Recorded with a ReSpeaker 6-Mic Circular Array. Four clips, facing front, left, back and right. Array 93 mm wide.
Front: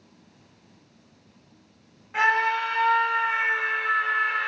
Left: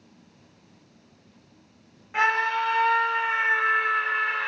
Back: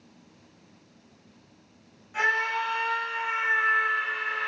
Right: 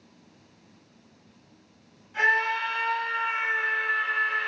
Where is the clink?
I don't hear a clink.